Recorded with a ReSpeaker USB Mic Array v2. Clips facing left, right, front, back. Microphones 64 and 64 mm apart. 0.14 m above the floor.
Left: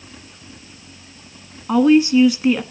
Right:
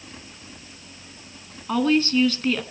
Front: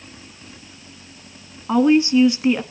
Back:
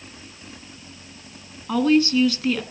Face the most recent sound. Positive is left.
turn(degrees=35)